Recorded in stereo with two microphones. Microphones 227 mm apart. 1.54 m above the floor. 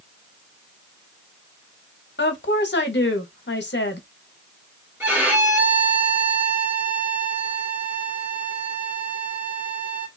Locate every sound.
2.2 s a woman speaking: 50° left (ahead or behind), 0.7 m
5.0 s a violin: 10° right (ahead or behind), 1.1 m